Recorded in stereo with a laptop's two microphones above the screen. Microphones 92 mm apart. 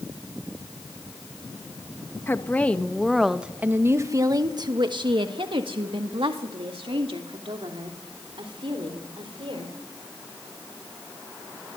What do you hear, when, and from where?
2.3 s a woman speaking: 25° left (ahead or behind), 1.3 m; by 9.7 s 80° right, 4 m